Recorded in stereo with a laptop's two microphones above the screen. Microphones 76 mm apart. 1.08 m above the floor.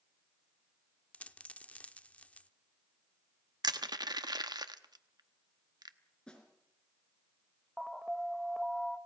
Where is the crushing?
65° right (ahead or behind), 1.0 m.